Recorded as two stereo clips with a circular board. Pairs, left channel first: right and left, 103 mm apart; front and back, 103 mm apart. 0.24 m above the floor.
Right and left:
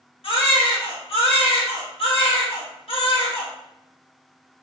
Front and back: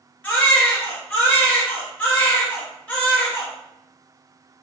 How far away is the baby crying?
About 1.4 m.